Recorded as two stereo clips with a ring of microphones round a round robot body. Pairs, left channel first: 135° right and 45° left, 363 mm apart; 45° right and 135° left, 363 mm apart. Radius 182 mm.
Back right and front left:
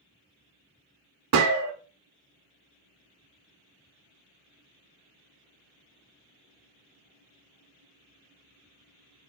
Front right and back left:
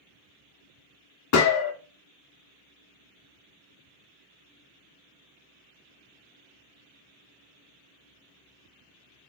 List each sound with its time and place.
1.3 s a gunshot: straight ahead, 0.6 m